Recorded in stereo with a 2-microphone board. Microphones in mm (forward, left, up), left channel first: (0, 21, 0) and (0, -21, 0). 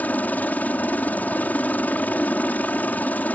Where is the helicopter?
45° left (ahead or behind).